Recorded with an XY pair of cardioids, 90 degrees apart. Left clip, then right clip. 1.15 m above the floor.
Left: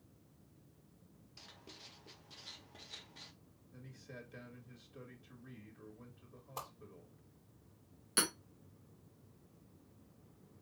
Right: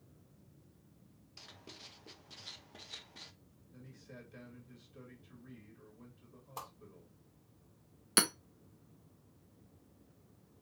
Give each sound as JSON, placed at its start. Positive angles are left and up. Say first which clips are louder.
{"t": 1.4, "sound": "writing", "louder": "right 3 dB", "azimuth_deg": -25, "distance_m": 0.7}
{"t": 3.7, "sound": "a man speaking", "louder": "left 1 dB", "azimuth_deg": 20, "distance_m": 1.9}
{"t": 6.6, "sound": "a whoosh", "louder": "even", "azimuth_deg": 5, "distance_m": 1.7}
{"t": 8.2, "sound": "hammering", "louder": "right 4 dB", "azimuth_deg": -60, "distance_m": 0.9}